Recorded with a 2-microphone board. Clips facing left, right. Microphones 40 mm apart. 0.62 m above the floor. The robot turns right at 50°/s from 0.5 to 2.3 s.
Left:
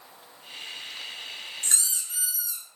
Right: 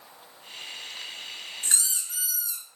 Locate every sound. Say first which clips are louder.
1.6 s a squeak: right 1 dB; 160° right, 0.7 m; by 2.6 s 125° right, 0.7 m